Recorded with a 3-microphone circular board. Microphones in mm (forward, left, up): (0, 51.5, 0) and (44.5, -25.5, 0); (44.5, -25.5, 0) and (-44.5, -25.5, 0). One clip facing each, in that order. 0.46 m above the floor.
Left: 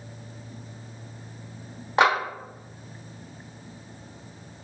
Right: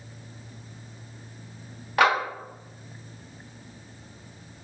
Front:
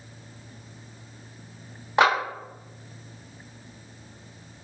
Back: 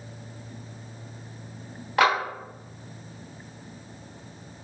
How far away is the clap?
About 1.1 m.